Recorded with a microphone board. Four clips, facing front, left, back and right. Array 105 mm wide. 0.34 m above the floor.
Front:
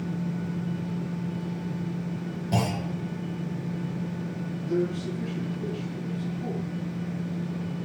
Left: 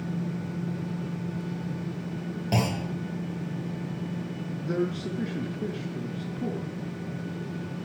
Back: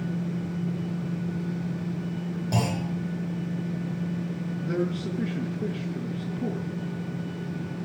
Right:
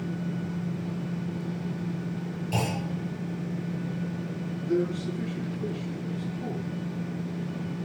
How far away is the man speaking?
About 5.5 m.